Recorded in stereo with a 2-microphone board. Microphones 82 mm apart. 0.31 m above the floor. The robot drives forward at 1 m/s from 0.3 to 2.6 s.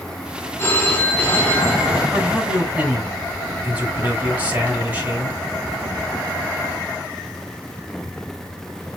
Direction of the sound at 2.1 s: 25° right (ahead or behind).